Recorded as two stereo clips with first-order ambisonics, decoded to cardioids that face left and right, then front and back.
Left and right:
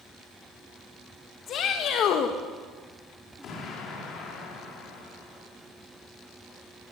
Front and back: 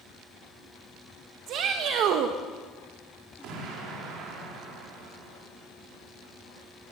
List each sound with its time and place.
1.5 s a shout: 140° left, 1.6 m
3.4 s an explosion: 145° left, 5 m